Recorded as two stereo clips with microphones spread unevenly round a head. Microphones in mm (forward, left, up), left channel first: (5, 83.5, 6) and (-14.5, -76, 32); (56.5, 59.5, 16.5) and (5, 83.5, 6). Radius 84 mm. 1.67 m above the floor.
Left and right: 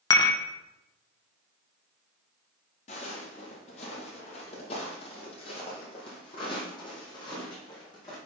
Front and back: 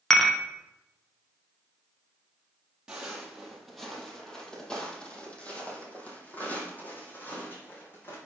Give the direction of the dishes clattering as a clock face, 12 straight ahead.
11 o'clock.